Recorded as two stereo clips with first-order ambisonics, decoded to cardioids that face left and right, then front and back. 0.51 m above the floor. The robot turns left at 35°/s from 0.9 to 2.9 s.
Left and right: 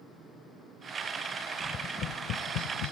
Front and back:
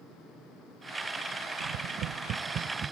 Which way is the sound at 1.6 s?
155° left.